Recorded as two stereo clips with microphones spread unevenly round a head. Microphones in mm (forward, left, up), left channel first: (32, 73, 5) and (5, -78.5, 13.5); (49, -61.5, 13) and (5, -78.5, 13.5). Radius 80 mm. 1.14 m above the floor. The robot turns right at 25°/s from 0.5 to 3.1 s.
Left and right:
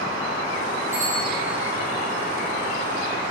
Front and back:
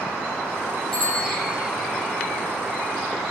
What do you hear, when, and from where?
0.9 s a bicycle bell: 60° right, 9 m; by 1.4 s 50° right, 9 m